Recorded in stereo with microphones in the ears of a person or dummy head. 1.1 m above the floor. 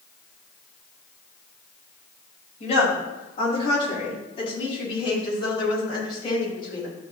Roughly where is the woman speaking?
Left.